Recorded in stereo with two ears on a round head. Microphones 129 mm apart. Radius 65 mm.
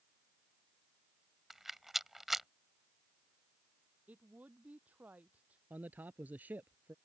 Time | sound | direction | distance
1.5 | a rattle | centre (ahead or behind) | ?
4.1 | a woman speaking | 10° right (ahead or behind) | ?
5.7 | a man speaking | 10° right (ahead or behind) | ?